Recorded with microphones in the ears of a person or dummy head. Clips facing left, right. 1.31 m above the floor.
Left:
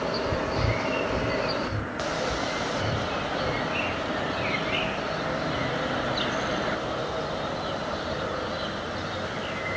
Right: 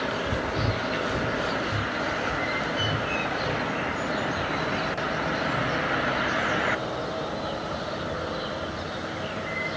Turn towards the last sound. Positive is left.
turn(degrees=-20)  # may be behind; listen again after turning